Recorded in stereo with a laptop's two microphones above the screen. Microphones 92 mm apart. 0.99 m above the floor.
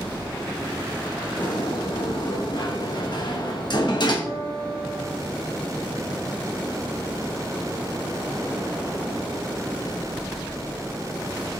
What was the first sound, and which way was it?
A sliding door, 55° left (ahead or behind).